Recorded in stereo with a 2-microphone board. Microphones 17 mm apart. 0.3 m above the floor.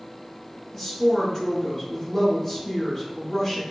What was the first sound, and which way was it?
A woman speaking, 30° left (ahead or behind).